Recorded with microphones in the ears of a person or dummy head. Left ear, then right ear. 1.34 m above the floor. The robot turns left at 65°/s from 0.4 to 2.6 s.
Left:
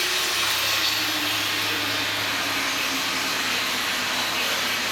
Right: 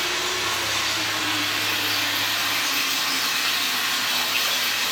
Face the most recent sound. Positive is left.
turn(degrees=-65)